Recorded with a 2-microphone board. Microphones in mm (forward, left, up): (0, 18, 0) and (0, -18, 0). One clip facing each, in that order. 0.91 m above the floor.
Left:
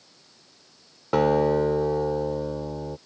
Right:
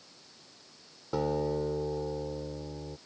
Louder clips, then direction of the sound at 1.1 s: Left 10 dB; 80° left.